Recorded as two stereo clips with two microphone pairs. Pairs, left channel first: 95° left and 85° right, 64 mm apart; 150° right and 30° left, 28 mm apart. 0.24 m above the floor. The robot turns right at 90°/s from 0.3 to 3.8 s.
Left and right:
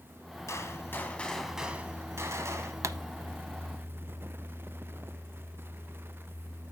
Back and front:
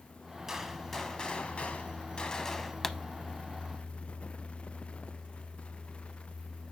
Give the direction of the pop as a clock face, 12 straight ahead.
3 o'clock.